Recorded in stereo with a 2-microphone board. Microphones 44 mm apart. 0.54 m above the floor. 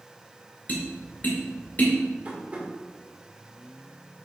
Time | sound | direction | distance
0.7 | tapping | 40° left (ahead or behind) | 2 m
2.2 | tapping | 35° right (ahead or behind) | 1.9 m